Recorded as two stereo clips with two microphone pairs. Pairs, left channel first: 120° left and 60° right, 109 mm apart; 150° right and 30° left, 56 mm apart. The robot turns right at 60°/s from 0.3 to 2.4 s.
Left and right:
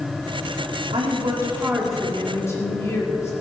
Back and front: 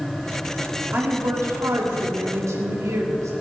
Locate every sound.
0.9 s a woman speaking: 35° right, 2 m; by 3.3 s 55° left, 2 m